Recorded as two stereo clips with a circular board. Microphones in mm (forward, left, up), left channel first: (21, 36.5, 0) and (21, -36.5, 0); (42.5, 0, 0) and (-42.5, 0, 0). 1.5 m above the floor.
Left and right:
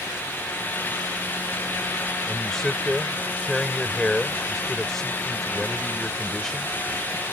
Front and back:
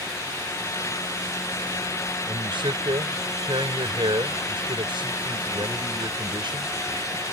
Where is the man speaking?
175° left.